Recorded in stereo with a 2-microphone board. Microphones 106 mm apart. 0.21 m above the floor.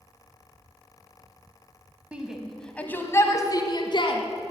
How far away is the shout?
About 1.1 m.